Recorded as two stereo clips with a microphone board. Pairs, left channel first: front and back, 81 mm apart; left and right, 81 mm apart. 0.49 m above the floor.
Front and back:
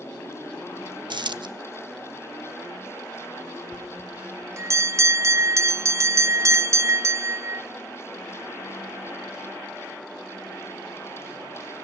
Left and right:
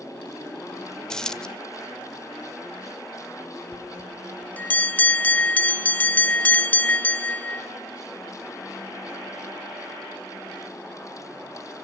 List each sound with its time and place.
1.1 s a dropped coin: 170° left, 0.6 m
3.7 s a bell: 150° left, 0.6 m